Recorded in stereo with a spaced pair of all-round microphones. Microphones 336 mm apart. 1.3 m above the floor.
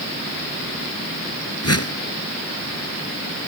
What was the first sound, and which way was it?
A whoosh, 50° left (ahead or behind).